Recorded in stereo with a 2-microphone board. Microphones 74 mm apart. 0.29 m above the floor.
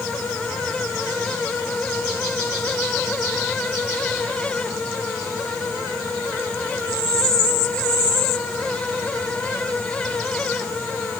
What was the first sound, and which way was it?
Only background noise.